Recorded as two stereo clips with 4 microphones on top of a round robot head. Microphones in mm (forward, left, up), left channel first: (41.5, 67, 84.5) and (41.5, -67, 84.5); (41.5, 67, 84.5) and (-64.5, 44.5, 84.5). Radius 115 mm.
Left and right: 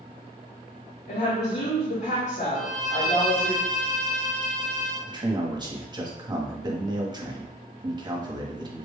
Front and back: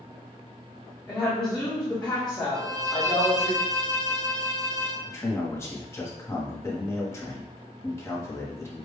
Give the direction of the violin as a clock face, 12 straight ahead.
8 o'clock.